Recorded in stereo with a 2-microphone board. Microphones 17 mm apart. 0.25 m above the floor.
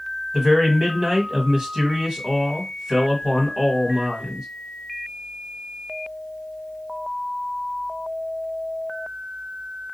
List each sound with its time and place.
0.3 s a man speaking: 45° right (ahead or behind), 1.7 m